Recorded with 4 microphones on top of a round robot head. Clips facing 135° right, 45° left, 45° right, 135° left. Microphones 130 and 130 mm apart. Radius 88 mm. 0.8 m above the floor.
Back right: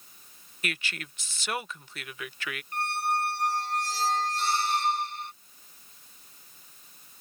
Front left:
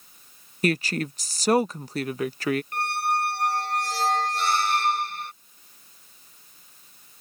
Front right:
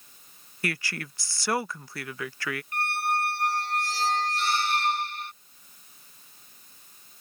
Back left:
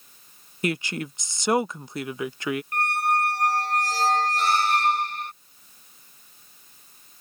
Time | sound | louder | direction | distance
0.6 | a woman speaking | front left 13 dB, back left 6 dB | 75° left | ?
2.7 | a squeak | front left 3 dB, back left 3 dB | 80° left | ?